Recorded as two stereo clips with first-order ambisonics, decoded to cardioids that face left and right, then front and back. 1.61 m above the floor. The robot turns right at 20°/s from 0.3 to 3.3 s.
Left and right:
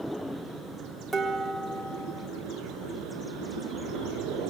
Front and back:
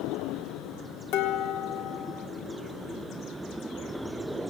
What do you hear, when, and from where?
1.1 s dishes clattering: straight ahead, 3 m; by 2.3 s 20° left, 3 m